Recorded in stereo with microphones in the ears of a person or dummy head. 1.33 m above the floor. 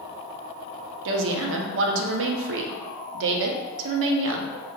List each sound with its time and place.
1.1 s a woman speaking: 65° right (ahead or behind), 0.6 m